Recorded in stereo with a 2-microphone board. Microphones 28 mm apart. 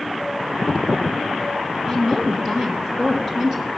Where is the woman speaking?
25° right (ahead or behind), 2.5 m.